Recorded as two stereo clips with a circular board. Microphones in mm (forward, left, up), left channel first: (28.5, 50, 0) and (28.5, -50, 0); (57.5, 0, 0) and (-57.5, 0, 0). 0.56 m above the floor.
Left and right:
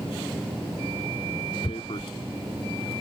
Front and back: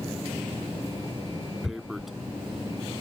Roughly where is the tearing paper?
Left.